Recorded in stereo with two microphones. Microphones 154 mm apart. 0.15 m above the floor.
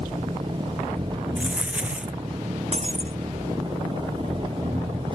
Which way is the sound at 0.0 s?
30° right (ahead or behind).